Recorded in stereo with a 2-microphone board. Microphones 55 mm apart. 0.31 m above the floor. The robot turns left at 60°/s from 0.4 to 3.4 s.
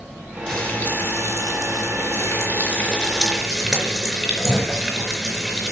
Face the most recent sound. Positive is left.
turn(degrees=-15)